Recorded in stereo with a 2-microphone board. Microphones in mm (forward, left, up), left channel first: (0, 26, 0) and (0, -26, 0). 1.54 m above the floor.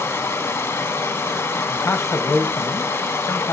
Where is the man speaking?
65° left (ahead or behind), 1.3 m.